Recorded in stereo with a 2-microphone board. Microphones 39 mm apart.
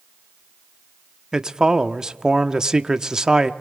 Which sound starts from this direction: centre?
A man speaking, at 1.3 s.